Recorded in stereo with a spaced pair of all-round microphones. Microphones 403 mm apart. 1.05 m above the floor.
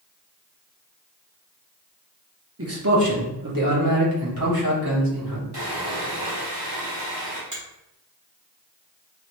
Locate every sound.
2.6 s a man speaking: 35° right (ahead or behind), 0.8 m; by 5.4 s 60° right (ahead or behind), 2.0 m
5.5 s sawing: 65° right (ahead or behind), 1.3 m
7.5 s a finger snap: 45° right (ahead or behind), 1.8 m